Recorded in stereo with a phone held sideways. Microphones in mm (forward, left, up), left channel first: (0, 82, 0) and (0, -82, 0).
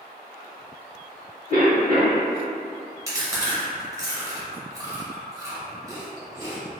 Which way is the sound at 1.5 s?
50° left (ahead or behind).